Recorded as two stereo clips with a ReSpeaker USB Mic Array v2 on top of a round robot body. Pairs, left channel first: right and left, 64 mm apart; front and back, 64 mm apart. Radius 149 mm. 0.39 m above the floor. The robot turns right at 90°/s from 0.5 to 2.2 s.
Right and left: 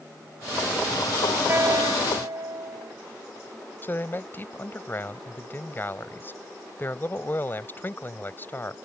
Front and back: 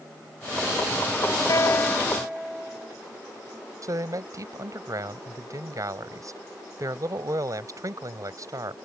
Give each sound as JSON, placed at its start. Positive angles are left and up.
{"t": 1.5, "sound": "a guitar", "azimuth_deg": 35}
{"t": 3.8, "sound": "a man speaking", "azimuth_deg": -145}